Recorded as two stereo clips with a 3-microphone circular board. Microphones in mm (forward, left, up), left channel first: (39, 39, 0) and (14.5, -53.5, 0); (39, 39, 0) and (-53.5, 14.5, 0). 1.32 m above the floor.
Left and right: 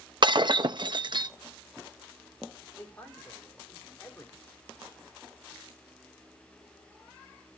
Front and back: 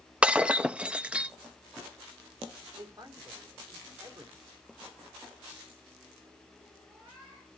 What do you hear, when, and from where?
0.2 s breaking glass: 90° right, 0.7 m
2.8 s a man speaking: 145° left, 4 m